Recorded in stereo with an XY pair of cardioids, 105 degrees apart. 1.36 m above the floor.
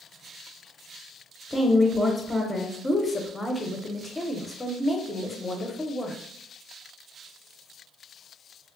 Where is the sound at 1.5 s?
10° left, 0.7 m.